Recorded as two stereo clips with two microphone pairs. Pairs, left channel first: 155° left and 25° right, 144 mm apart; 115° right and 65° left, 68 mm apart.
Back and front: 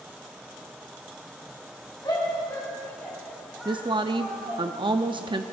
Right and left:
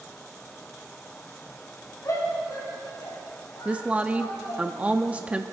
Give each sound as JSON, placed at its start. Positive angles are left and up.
{"t": 2.0, "sound": "a shout", "azimuth_deg": -145, "distance_m": 5.5}
{"t": 3.6, "sound": "a woman speaking", "azimuth_deg": 10, "distance_m": 0.6}